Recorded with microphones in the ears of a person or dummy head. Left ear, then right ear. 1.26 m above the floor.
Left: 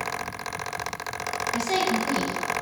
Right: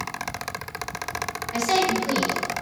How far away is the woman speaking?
About 1.3 m.